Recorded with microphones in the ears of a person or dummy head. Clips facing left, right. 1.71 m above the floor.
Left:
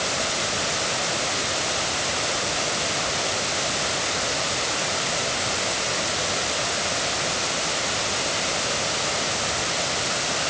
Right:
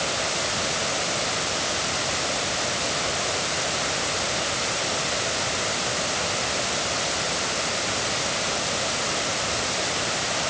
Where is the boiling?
No boiling in this recording.